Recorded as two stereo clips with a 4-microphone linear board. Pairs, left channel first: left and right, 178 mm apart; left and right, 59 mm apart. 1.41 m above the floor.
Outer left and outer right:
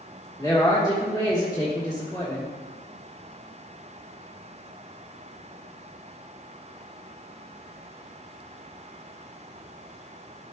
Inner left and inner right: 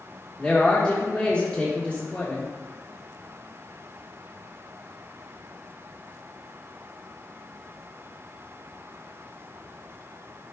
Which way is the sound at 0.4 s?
20° left (ahead or behind).